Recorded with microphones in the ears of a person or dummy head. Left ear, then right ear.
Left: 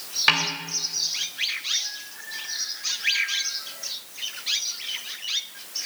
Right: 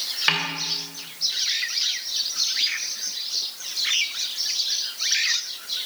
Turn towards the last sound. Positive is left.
turn(degrees=20)  # may be behind; listen again after turning